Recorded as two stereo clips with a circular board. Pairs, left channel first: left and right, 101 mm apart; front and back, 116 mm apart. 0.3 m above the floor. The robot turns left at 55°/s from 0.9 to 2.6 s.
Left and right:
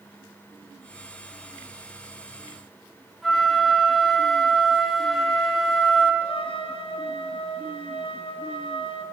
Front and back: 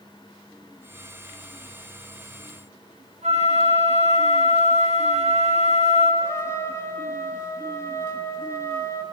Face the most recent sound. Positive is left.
turn(degrees=65)